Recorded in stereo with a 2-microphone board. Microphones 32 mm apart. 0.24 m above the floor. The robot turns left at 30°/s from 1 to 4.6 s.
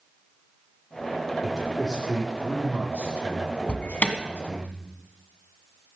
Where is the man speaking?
20° right, 10 m; by 4.7 s 115° right, 10 m.